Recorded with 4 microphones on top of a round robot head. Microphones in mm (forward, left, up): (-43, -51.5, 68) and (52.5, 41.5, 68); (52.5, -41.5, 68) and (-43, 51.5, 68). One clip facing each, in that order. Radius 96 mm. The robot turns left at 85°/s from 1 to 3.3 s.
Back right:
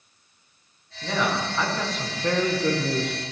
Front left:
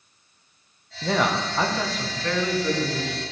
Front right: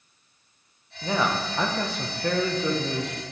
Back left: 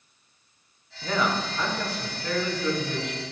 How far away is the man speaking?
About 1.3 m.